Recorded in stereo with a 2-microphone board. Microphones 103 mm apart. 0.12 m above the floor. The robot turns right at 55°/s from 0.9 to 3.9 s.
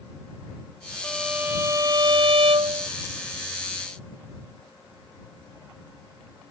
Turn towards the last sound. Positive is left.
turn(degrees=-25)